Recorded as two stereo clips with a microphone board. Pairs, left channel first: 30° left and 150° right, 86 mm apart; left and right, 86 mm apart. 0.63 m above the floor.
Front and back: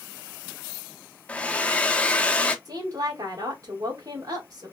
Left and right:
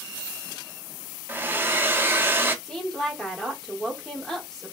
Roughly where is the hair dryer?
Ahead right.